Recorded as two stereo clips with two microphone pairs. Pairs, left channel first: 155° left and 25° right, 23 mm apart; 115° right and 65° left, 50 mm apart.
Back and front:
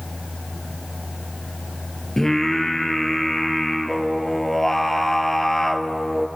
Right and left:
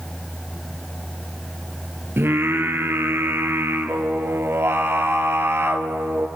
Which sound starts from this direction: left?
Singing, at 2.2 s.